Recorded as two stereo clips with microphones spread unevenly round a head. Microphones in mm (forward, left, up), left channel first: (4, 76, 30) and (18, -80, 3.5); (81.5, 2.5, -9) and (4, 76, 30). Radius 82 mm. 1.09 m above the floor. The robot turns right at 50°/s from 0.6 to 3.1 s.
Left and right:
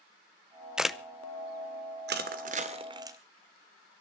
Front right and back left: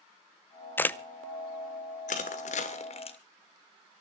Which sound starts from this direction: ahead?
A camera shutter, at 0.8 s.